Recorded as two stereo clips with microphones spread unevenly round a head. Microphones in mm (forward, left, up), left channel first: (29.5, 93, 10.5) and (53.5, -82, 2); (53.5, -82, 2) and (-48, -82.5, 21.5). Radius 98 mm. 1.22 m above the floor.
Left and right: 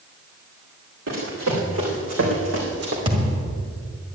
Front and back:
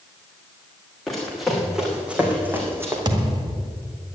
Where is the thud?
150° right, 1.7 m.